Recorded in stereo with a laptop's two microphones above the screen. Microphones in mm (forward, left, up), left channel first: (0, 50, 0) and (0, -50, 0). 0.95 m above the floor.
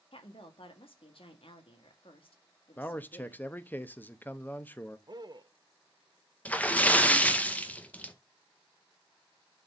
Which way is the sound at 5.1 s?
45° right (ahead or behind).